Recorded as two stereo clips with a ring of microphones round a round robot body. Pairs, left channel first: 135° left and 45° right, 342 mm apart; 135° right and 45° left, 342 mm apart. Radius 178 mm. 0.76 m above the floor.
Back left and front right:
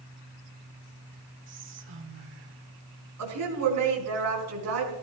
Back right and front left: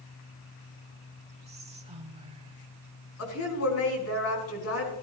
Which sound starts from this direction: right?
A woman speaking, at 3.2 s.